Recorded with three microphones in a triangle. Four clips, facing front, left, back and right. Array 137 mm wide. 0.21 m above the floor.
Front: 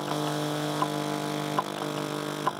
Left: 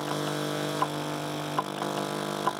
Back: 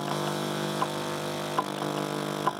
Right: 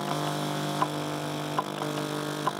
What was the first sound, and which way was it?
Only background noise.